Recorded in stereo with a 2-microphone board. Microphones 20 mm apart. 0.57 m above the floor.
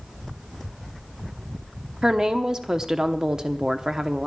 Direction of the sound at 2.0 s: 35° right (ahead or behind).